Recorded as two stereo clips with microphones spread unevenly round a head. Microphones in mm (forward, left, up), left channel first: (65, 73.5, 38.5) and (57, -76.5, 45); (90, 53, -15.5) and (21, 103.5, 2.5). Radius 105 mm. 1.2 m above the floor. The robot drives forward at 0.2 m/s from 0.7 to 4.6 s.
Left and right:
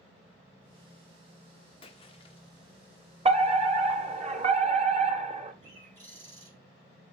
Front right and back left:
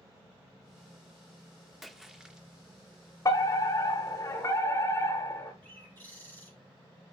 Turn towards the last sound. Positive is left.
turn(degrees=-150)